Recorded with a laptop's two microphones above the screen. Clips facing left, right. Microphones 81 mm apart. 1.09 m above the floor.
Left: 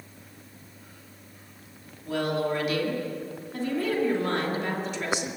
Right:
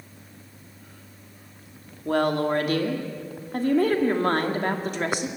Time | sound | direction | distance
2.0 | a woman speaking | 50° right (ahead or behind) | 2.5 m